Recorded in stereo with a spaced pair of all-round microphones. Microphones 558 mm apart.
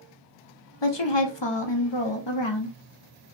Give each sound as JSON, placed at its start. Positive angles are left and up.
{"t": 0.8, "sound": "a woman speaking", "side_deg": 50, "distance_m": 0.8}